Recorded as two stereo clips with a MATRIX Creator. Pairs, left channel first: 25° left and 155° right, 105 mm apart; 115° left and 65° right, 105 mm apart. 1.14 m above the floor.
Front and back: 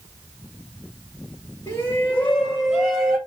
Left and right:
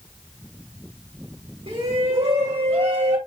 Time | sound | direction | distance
1.7 | a shout | 40° right | 1.4 m